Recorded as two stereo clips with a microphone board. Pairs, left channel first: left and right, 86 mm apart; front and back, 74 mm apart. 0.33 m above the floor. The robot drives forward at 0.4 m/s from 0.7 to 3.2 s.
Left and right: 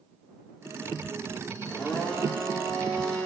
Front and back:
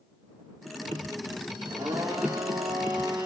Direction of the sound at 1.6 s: 170° left.